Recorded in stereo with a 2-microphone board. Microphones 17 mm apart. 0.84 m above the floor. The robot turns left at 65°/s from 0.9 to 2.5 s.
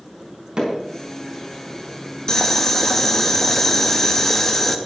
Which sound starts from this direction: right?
Hammering, at 0.6 s.